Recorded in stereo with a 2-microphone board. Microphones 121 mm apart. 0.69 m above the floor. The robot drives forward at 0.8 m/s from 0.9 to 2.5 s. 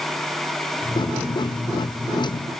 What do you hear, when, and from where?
Only background noise.